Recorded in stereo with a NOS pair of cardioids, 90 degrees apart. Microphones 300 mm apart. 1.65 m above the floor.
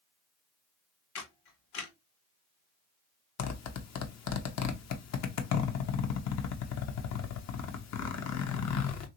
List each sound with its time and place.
1.1 s a camera shutter: 65° left, 1.1 m
3.4 s a zipper: 60° left, 0.8 m